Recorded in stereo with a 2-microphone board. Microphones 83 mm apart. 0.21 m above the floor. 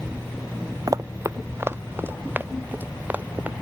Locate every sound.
0.9 s running footsteps: 45° right (ahead or behind); by 3.5 s 20° right (ahead or behind)